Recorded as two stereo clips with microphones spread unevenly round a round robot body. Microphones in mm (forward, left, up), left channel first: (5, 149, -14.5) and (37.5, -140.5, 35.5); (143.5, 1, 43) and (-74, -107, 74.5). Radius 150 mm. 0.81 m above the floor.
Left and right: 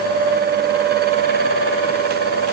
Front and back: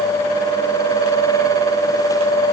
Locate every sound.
Only background noise.